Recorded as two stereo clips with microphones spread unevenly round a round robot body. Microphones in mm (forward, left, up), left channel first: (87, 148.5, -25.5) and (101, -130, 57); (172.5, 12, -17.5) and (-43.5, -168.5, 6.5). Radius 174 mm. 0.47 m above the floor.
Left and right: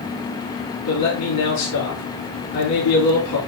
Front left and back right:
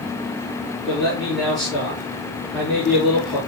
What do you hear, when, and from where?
0.9 s a man speaking: 130° left, 6 m